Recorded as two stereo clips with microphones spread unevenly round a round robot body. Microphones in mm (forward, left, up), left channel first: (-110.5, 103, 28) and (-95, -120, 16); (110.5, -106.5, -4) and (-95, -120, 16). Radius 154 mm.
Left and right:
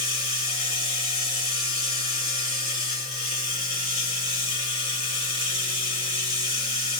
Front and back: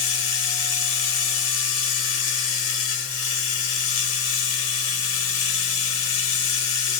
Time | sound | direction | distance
0.0 | running water | 20° left | 2.5 m